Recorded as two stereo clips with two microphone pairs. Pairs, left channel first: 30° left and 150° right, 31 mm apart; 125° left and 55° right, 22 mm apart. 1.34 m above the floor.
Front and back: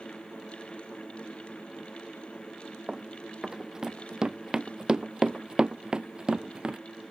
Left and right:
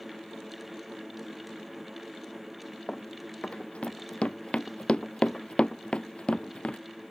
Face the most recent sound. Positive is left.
turn(degrees=155)